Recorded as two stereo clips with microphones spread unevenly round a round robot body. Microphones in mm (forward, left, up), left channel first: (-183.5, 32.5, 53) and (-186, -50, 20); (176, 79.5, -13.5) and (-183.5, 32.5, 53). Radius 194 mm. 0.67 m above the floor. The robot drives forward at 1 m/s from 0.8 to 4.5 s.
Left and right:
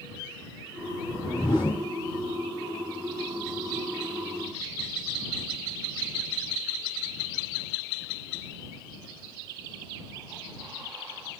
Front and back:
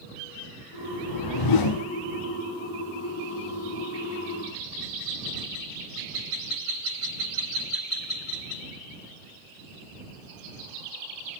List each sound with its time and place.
1.1 s a whoosh: 10° left, 1.8 m; by 1.9 s 20° left, 1.0 m